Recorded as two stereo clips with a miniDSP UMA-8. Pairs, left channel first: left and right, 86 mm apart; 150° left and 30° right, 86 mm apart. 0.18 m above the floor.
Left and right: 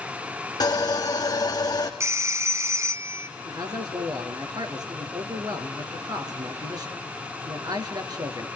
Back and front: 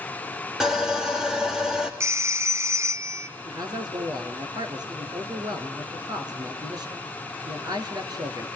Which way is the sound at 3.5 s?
60° right.